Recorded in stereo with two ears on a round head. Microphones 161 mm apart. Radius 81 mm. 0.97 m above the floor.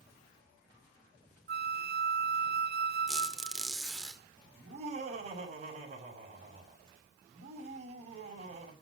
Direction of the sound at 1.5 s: 55° right (ahead or behind).